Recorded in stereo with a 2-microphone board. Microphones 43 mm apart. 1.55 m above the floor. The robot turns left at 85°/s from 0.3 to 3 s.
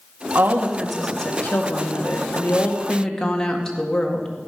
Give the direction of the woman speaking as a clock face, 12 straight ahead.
4 o'clock.